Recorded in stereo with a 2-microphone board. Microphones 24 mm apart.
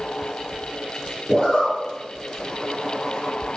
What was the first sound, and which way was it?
A zipper, 40° left (ahead or behind).